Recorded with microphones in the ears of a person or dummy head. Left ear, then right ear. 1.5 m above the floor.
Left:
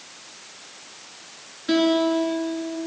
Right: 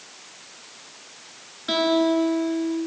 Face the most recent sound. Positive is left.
turn(degrees=-50)  # may be behind; listen again after turning